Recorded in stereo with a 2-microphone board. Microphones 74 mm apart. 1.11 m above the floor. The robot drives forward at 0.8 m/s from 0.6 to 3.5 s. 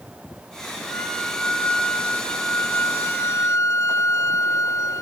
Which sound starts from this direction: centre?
A violin, at 0.8 s.